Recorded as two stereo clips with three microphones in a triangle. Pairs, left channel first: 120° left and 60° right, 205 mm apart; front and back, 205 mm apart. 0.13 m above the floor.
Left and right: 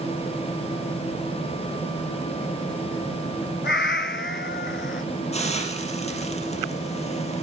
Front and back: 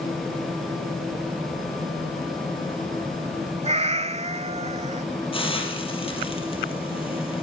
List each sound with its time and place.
3.6 s a cat meowing: 130° left, 0.6 m
5.3 s a hiss: 65° left, 4 m